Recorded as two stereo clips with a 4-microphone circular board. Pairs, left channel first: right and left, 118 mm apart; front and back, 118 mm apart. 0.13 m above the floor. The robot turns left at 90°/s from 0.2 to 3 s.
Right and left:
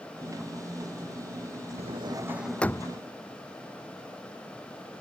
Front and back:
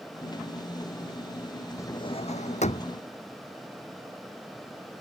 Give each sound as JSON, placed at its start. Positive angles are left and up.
{"t": 1.8, "sound": "a drawer", "azimuth_deg": 65}